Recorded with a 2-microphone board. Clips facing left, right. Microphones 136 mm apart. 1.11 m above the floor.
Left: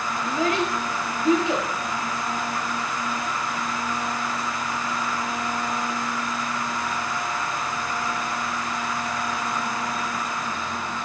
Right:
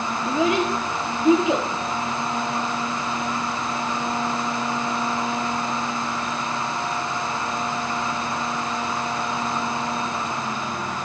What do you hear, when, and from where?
0.2 s a child speaking: 20° right (ahead or behind), 1.6 m